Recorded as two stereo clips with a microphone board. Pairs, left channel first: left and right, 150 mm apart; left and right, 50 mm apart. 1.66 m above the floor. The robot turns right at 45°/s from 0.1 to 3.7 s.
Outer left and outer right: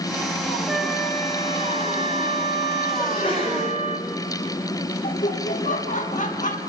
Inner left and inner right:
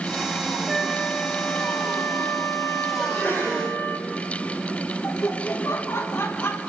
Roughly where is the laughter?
Left.